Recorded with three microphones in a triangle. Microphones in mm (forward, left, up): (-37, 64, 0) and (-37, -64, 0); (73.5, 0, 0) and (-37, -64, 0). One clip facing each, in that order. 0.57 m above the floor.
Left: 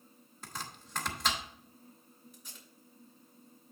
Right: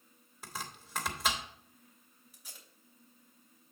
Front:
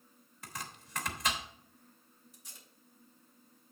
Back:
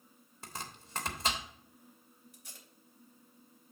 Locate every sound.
0.4 s chopping: 170° right, 1.3 m
2.3 s tape being pulled: 170° right, 3 m